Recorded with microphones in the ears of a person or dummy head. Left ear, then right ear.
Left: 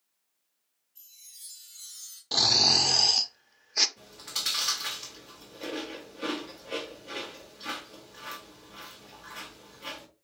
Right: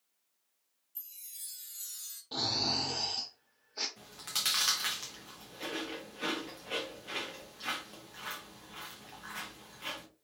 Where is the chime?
30° right (ahead or behind), 1.0 m.